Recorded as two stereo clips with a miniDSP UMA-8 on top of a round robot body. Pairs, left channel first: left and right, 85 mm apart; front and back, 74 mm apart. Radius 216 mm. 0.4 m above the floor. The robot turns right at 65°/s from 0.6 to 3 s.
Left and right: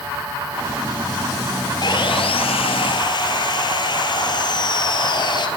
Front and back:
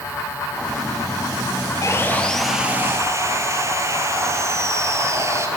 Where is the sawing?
50° left, 2 m; by 5.5 s 125° left, 2 m.